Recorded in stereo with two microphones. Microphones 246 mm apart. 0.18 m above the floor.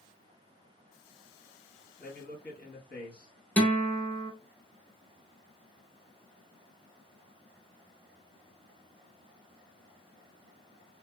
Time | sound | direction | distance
2.0 | a man speaking | 40° left (ahead or behind) | 1.4 m
3.6 | a guitar | 5° left (ahead or behind) | 0.9 m